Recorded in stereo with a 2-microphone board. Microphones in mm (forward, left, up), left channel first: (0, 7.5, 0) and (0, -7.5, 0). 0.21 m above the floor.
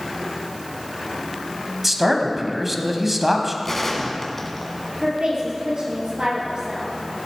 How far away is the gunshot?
About 1.5 m.